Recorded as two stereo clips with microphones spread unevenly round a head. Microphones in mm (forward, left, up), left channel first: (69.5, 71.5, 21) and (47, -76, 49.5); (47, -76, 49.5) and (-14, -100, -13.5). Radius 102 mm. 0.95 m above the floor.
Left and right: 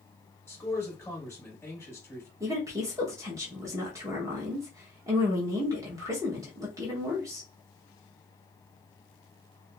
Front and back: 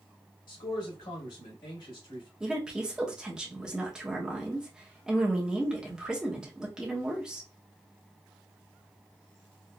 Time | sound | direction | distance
0.5 | a man speaking | 10° left | 2 m
2.4 | a woman speaking | 175° right | 1.2 m